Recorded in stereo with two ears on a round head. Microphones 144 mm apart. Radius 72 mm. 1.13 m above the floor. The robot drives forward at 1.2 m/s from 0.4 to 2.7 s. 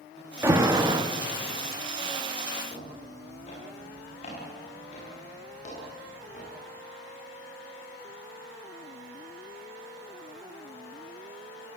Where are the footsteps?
35° left (ahead or behind), 10 m; by 6.5 s 45° left (ahead or behind), 13 m.